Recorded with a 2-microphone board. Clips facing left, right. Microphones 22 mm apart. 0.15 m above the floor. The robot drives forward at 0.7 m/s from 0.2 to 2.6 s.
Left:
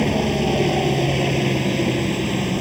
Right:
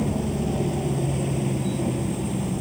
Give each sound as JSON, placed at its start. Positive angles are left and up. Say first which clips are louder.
{"t": 0.0, "sound": "a helicopter", "louder": "left 6 dB", "side_deg": 50}